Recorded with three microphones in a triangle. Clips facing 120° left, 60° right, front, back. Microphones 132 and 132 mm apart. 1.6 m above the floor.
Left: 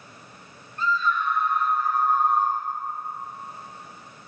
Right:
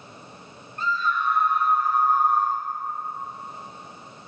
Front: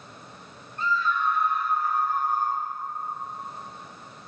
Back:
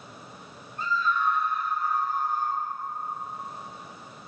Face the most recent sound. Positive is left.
turn(degrees=50)